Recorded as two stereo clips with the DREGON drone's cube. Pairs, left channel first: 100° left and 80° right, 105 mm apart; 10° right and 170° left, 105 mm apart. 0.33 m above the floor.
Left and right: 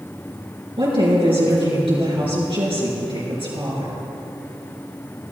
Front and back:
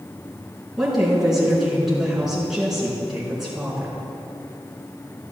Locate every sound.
0.8 s a woman speaking: 105° right, 4 m